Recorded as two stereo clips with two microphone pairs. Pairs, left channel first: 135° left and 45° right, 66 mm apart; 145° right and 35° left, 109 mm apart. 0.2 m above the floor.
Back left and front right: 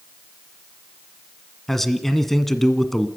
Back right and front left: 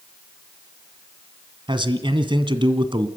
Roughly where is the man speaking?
Ahead left.